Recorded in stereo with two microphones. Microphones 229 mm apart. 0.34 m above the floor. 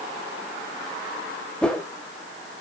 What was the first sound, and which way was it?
A whoosh, 5° left (ahead or behind).